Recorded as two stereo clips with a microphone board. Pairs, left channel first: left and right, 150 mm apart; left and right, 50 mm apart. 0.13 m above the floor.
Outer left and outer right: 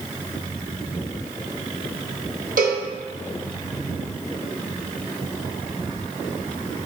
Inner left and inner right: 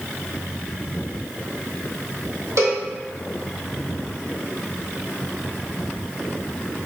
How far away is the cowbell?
About 1.1 m.